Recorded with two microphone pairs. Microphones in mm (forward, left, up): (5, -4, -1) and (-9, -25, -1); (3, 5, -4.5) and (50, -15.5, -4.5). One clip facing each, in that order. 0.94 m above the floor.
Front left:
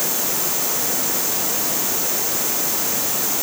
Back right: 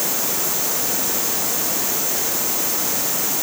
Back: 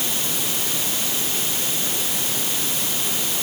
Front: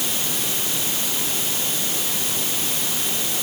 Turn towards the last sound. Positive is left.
No sound to turn to.